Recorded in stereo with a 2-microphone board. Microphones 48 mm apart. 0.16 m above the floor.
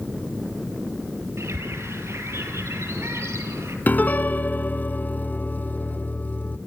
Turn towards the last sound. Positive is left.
turn(degrees=40)  # may be behind; listen again after turning